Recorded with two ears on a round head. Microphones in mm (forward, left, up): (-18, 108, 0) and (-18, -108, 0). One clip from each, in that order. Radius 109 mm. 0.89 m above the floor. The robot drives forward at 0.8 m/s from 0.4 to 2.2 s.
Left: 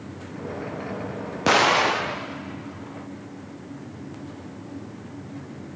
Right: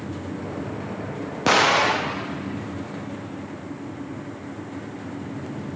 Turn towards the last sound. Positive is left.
turn(degrees=0)  # may be behind; listen again after turning